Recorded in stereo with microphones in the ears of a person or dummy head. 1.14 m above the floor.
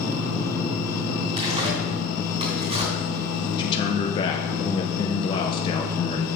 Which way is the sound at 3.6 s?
30° left (ahead or behind).